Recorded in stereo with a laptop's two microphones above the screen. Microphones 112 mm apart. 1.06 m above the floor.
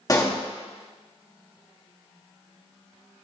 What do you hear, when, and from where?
0.1 s a pop: 30° left (ahead or behind), 0.9 m